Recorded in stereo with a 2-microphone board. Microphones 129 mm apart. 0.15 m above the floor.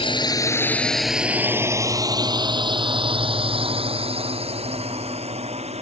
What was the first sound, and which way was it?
A drone, 40° left (ahead or behind).